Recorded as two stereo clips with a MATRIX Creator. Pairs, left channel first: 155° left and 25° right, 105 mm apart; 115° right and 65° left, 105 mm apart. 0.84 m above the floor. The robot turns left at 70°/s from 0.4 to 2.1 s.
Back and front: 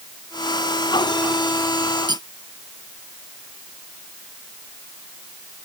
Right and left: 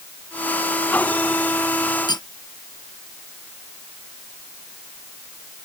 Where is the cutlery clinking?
65° right; by 2.3 s 70° right.